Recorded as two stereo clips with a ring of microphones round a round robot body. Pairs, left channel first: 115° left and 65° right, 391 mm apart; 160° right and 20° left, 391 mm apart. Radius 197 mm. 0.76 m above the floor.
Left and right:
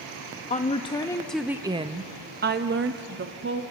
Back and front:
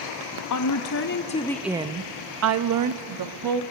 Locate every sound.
0.5 s a woman speaking: straight behind, 0.9 m; by 3.6 s 10° right, 1.4 m